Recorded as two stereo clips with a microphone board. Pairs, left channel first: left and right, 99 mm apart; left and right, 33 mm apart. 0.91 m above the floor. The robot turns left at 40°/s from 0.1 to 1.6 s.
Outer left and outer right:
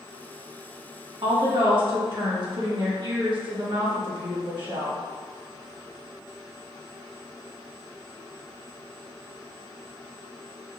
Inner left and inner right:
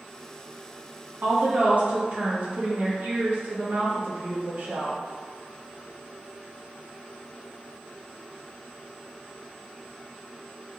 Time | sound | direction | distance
1.2 | a woman speaking | 60° right (ahead or behind) | 1.3 m